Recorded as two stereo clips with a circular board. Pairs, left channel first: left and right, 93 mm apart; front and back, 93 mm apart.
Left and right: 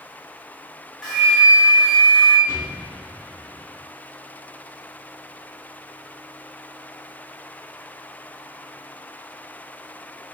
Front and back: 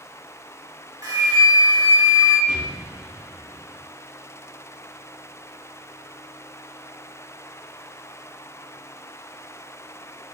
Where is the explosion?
30° right, 1.4 m.